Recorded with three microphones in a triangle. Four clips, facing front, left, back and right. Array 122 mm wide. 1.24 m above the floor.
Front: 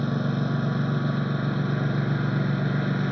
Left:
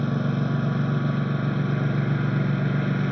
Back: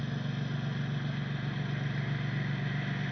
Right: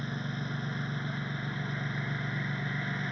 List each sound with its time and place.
0.0 s a lawn mower: 45° left